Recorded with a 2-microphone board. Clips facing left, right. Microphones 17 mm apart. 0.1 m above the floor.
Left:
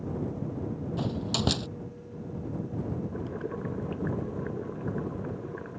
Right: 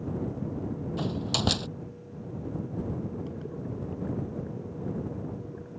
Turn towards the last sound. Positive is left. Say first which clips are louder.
# left 2 dB
turn(degrees=45)  # may be behind; listen again after turning